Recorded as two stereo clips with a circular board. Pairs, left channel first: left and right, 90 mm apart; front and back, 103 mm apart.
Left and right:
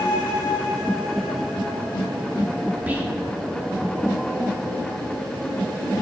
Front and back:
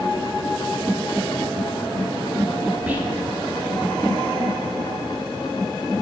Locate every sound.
2.9 s whispering: 130° right, 1.2 m